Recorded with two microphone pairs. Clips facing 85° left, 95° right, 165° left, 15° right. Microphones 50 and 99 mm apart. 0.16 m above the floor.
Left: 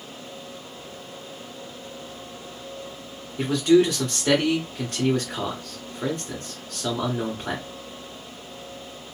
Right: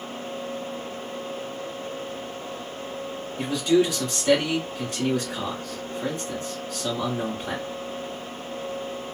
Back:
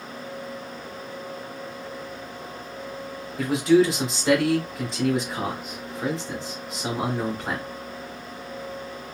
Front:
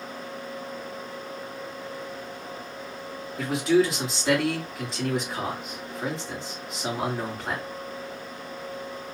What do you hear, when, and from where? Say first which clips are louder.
3.4 s a man speaking: left 3 dB, back 3 dB; 70° left, 2 m